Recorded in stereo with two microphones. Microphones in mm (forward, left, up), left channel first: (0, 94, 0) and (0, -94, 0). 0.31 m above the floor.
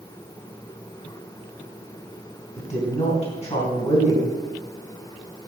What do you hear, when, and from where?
2.6 s a woman speaking: 35° left (ahead or behind), 3 m